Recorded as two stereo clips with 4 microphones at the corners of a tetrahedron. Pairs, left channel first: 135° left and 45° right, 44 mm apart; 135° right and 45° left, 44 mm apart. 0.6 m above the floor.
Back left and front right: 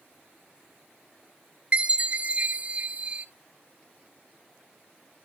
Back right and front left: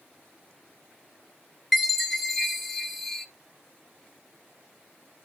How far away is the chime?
About 1.1 m.